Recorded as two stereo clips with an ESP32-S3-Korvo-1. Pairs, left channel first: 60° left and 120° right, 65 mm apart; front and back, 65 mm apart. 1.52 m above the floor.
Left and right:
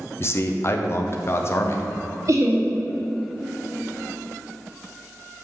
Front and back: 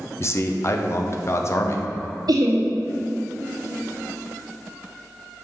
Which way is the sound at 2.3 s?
160° right.